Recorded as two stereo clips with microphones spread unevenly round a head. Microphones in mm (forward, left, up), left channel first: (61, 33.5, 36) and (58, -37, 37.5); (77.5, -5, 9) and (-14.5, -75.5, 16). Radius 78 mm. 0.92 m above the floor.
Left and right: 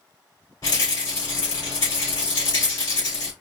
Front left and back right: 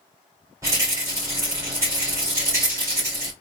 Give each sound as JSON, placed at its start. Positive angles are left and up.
{"t": 0.6, "sound": "a rattle", "azimuth_deg": 145, "distance_m": 2.0}